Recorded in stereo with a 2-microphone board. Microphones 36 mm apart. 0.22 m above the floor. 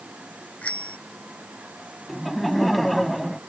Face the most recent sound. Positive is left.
turn(degrees=0)  # may be behind; listen again after turning